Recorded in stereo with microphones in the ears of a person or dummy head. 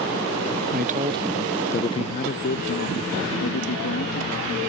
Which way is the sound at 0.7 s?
45° right (ahead or behind).